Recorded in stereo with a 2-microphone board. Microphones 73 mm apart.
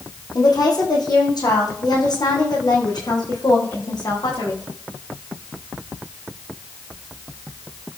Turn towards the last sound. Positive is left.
turn(degrees=65)  # may be behind; listen again after turning